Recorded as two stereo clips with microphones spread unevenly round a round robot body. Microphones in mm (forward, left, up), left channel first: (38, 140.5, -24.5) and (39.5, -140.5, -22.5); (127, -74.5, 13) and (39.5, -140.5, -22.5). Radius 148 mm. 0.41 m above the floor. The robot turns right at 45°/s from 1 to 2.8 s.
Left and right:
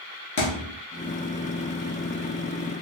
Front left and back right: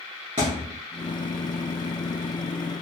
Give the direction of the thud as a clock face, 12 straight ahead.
7 o'clock.